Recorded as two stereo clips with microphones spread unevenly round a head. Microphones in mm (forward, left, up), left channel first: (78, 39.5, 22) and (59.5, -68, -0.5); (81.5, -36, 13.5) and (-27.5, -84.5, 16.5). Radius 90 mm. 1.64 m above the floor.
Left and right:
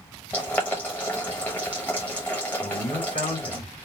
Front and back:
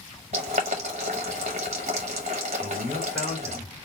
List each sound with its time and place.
0.3 s boiling: 155° left, 0.7 m
2.6 s a man speaking: 110° left, 3 m